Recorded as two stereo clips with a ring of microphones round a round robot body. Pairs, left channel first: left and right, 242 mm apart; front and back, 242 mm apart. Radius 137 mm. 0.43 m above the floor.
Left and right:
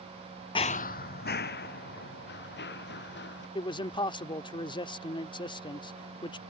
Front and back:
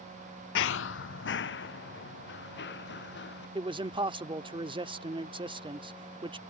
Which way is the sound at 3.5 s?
135° left.